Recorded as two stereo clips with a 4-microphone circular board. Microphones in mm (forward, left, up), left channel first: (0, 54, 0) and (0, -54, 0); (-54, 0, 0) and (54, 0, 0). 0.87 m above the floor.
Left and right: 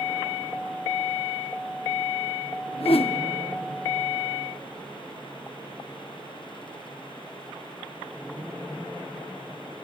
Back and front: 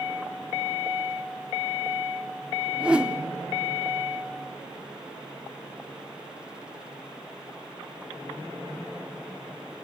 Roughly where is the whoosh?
Left.